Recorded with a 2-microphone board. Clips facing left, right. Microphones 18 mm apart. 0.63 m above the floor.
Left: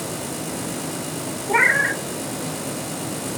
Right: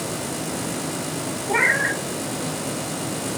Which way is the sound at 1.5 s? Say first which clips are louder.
Left 2 dB; 15° left (ahead or behind).